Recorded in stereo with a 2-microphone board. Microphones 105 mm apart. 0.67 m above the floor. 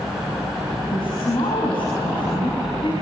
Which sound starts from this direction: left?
A woman speaking, at 0.9 s.